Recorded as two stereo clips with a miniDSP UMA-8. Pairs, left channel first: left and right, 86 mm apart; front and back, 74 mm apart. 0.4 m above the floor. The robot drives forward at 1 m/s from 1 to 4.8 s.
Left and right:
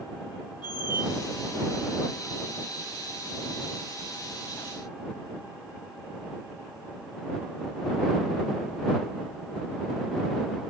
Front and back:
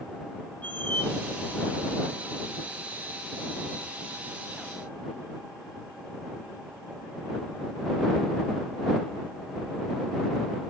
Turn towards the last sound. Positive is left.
turn(degrees=165)